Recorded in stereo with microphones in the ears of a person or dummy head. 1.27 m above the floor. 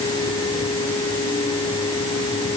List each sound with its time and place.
Only background noise.